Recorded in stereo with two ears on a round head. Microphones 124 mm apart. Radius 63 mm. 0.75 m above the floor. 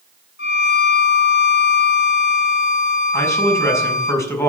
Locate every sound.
0.4 s a violin: 85° left, 4.5 m
3.1 s a man speaking: 20° left (ahead or behind), 6 m